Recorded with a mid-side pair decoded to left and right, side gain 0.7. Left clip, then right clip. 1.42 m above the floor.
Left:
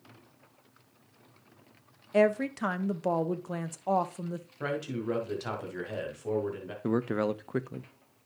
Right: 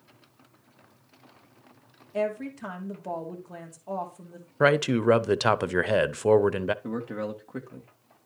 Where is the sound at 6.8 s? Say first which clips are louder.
Left 4 dB; 30° left, 0.9 m.